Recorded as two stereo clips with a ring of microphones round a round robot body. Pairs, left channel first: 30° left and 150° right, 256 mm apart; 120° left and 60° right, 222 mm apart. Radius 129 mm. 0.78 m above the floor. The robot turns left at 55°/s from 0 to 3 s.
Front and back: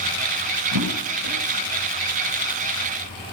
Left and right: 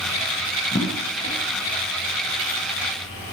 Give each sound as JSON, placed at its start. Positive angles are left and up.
{"t": 0.7, "sound": "a drawer", "azimuth_deg": -155, "distance_m": 10.0}